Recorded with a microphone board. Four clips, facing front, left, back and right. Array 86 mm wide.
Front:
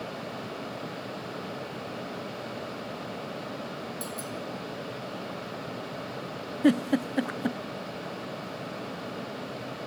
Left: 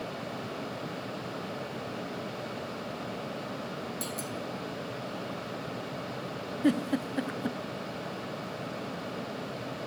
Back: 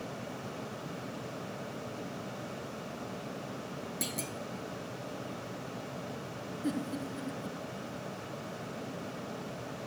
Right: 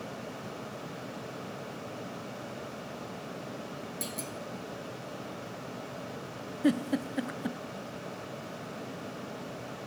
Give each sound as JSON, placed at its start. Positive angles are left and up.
{"t": 4.0, "sound": "a clunk", "azimuth_deg": 180, "distance_m": 1.9}
{"t": 6.6, "sound": "a giggle", "azimuth_deg": 0, "distance_m": 0.6}